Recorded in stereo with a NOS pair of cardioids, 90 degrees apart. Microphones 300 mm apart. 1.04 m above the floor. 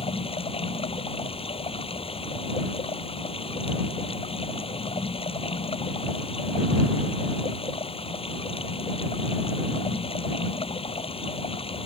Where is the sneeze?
No sneeze in this recording.